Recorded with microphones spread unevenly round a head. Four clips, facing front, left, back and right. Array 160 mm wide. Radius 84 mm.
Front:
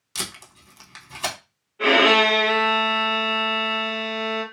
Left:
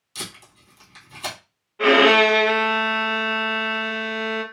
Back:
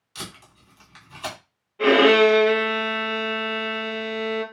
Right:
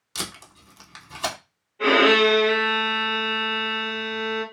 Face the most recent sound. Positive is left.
turn(degrees=130)